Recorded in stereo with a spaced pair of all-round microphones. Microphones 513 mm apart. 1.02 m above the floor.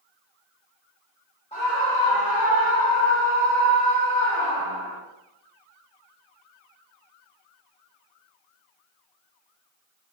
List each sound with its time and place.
1.5 s a scream: 15° left (ahead or behind), 0.5 m; by 5.0 s 70° left (ahead or behind), 3.5 m